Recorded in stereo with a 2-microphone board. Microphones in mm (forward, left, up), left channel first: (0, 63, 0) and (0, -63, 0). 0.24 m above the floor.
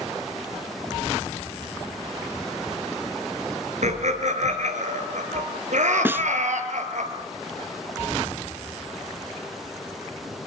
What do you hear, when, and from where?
3.8 s laughter: 65° right (ahead or behind), 4.5 m; by 7.0 s 75° right (ahead or behind), 5.5 m
6.0 s a snare drum: 15° right (ahead or behind), 0.6 m